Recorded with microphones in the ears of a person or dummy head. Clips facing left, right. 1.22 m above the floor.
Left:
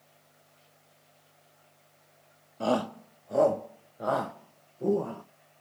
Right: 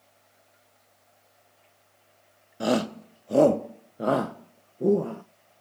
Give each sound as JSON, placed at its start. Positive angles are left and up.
{"t": 2.6, "sound": "a shout", "side_deg": -20, "distance_m": 0.6}